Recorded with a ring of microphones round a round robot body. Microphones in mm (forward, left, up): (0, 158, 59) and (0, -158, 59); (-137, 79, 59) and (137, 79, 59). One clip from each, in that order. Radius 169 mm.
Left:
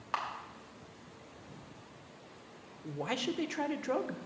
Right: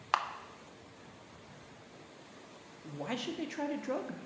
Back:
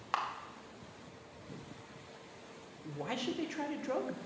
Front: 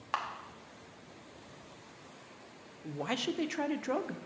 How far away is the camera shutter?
About 0.8 m.